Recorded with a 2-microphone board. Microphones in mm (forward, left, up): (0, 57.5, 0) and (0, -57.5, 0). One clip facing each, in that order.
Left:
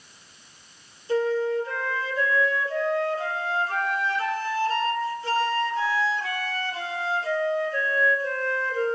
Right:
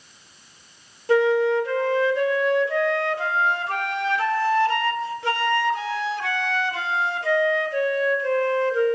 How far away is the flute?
About 3 m.